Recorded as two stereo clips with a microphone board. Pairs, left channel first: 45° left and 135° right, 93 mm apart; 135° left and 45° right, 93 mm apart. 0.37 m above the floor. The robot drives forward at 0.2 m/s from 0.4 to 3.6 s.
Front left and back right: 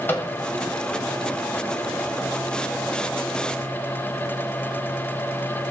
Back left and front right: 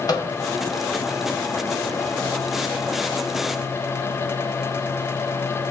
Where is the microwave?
110° left, 1.8 m.